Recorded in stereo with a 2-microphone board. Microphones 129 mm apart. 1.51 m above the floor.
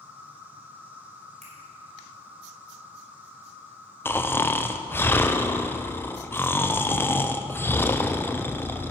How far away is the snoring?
About 0.6 m.